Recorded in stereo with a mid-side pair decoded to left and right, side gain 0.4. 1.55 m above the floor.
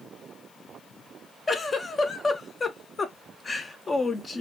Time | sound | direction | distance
1.5 | a giggle | 40° left | 0.6 m